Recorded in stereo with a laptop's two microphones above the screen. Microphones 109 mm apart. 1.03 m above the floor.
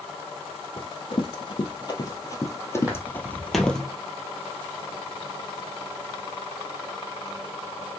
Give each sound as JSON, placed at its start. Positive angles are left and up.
{"t": 0.8, "sound": "running footsteps", "side_deg": 55, "distance_m": 2.0}
{"t": 2.8, "sound": "footsteps", "side_deg": -15, "distance_m": 2.0}